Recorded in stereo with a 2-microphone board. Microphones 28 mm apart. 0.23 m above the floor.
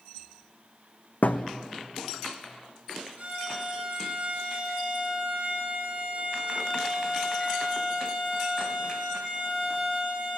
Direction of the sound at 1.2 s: 85° left.